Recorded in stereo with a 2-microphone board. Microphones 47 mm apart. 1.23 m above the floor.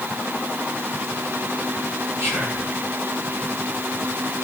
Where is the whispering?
70° right (ahead or behind), 6 m.